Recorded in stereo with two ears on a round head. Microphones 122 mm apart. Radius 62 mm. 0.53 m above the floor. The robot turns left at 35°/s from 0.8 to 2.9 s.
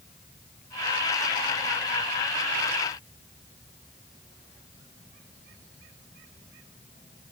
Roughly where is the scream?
I don't hear a scream.